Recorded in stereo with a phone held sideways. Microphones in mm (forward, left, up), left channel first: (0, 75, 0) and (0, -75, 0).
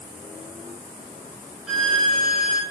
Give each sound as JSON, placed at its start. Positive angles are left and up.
{"t": 1.7, "sound": "a violin", "side_deg": 0, "distance_m": 4.5}